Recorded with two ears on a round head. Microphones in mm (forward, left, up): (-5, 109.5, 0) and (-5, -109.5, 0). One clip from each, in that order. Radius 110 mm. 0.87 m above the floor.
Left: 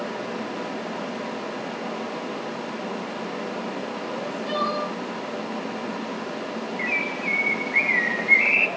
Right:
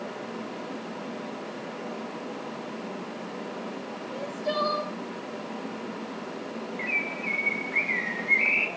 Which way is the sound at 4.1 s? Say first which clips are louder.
Even; 30° right (ahead or behind).